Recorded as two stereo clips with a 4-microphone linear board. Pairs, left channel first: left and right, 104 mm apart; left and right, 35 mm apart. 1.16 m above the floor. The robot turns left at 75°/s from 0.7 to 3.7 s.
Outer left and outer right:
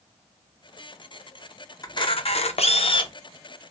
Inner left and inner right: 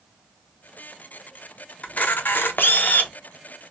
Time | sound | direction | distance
1.8 | a camera shutter | 145° left | 0.5 m